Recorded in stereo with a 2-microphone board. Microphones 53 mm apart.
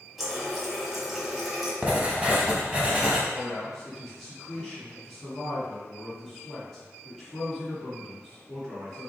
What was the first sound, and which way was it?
A running tap, 5° right (ahead or behind).